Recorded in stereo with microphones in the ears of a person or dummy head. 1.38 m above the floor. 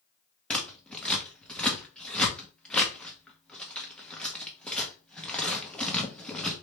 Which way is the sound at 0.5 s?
Centre (ahead or behind).